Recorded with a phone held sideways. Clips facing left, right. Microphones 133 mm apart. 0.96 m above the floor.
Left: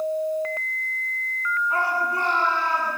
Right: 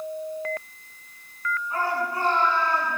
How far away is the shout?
About 9.5 m.